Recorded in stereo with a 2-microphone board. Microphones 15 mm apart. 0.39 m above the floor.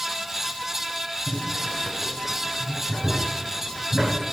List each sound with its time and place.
1.3 s boiling: 55° left (ahead or behind), 3 m